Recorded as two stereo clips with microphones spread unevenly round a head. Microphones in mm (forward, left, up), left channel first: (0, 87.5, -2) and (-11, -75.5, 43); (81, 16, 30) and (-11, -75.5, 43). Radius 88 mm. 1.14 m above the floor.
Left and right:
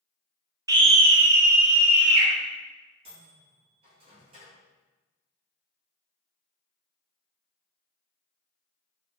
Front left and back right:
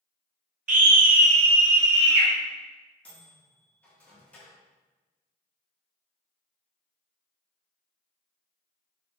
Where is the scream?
170° right, 0.9 m; by 2.3 s 60° right, 1.9 m.